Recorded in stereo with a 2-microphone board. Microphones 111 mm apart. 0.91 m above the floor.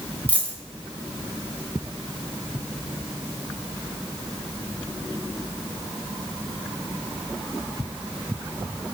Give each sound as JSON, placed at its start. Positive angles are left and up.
{"t": 0.3, "sound": "a dropped coin", "side_deg": 15, "distance_m": 0.9}